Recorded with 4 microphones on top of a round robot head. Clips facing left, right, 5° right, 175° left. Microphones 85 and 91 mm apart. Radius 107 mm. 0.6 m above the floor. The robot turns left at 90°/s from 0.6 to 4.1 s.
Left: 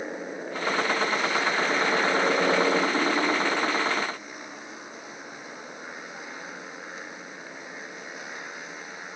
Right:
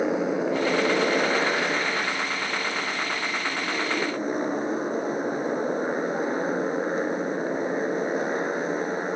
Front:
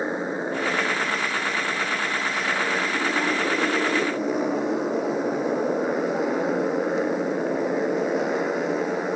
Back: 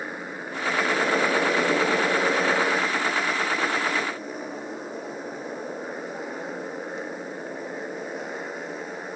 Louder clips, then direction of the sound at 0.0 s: Right 10 dB, front 8 dB; 75° right.